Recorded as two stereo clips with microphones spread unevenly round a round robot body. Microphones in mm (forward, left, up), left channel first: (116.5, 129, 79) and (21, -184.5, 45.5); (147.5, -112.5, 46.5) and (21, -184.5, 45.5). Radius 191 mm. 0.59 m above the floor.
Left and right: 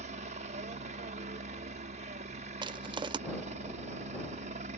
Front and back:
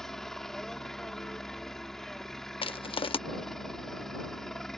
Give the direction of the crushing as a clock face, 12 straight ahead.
1 o'clock.